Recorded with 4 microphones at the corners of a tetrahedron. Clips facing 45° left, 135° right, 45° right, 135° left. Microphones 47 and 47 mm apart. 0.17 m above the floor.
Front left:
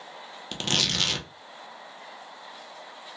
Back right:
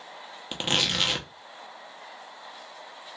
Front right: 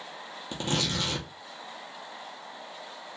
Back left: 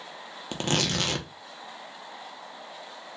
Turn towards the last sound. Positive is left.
turn(degrees=150)